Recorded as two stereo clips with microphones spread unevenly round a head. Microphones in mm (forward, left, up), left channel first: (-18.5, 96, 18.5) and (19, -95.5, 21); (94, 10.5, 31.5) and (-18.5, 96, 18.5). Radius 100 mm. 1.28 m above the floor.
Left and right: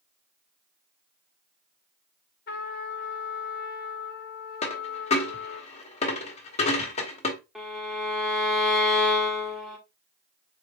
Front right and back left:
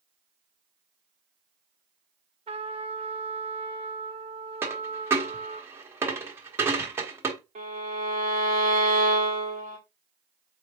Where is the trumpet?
115° left, 0.8 m.